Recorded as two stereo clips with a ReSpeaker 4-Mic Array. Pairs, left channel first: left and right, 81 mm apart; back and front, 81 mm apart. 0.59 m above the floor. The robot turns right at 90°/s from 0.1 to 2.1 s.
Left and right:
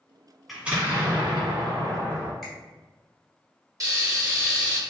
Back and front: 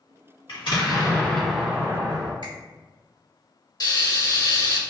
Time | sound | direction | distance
0.5 | an explosion | straight behind | 1.3 m
2.4 | a finger snap | straight ahead | 1.6 m
3.8 | frying | 140° right | 0.9 m